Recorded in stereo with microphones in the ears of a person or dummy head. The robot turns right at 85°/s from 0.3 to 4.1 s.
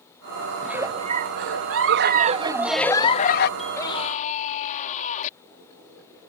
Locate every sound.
0.6 s a giggle: straight behind; by 3.5 s 65° left
3.6 s a scream: straight ahead; by 5.3 s 45° left